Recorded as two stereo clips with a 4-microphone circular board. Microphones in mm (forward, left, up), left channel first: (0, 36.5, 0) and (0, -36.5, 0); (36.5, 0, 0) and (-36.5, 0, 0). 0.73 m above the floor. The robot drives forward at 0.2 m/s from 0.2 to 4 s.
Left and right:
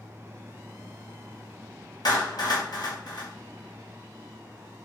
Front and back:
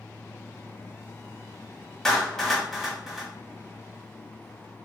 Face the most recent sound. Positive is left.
turn(degrees=105)